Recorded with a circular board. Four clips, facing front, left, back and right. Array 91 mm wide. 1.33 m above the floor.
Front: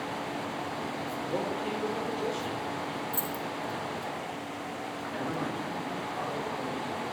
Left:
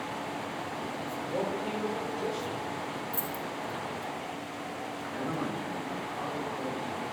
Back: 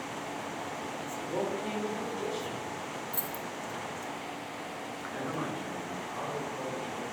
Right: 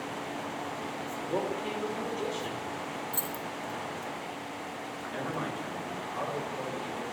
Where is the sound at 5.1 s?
110° right, 6 m.